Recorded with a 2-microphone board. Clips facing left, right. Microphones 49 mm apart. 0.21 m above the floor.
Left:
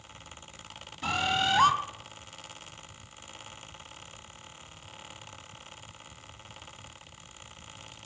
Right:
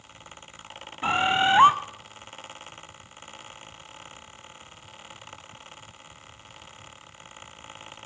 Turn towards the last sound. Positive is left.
turn(degrees=-30)  # may be behind; listen again after turning